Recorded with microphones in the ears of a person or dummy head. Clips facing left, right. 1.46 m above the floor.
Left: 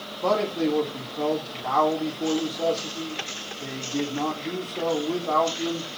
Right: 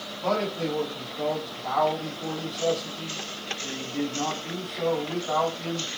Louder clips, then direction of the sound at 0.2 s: Left 4 dB; 60° left (ahead or behind).